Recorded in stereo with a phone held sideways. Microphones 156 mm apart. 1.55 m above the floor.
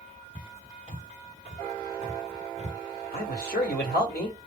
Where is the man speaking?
85° left, 1.3 m.